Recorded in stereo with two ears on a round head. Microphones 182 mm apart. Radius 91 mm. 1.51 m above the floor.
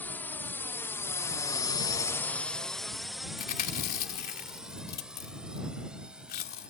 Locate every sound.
0.0 s a drone: 10° left (ahead or behind); by 6.7 s 5° right (ahead or behind)
3.4 s chewing: 45° left (ahead or behind)